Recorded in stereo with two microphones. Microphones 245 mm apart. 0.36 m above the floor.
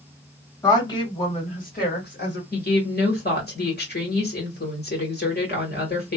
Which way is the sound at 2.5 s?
40° left (ahead or behind).